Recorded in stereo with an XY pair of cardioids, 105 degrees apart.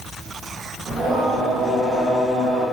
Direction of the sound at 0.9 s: 40° right.